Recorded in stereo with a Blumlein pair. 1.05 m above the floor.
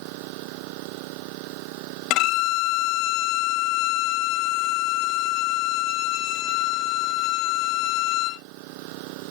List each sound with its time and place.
0.0 s an engine running: 45° right
2.1 s a violin: 40° left